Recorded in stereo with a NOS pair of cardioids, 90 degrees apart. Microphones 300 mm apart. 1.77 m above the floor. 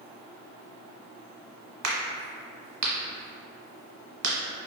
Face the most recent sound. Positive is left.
turn(degrees=-60)